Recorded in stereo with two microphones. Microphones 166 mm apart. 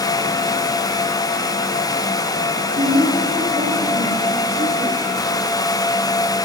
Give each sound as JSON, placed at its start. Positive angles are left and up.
{"t": 2.6, "sound": "a woman speaking", "side_deg": -75, "distance_m": 8.0}